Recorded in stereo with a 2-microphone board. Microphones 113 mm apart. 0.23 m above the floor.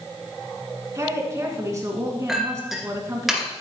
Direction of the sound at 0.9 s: 30° right (ahead or behind).